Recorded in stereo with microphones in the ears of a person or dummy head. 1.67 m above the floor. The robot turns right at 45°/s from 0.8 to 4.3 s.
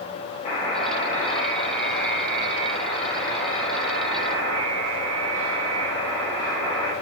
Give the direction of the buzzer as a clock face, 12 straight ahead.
10 o'clock.